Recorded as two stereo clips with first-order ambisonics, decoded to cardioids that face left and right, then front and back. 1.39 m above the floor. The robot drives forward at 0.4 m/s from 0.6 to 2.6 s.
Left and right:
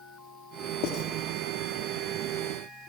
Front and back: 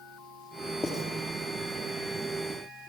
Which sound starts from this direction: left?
Writing, at 0.8 s.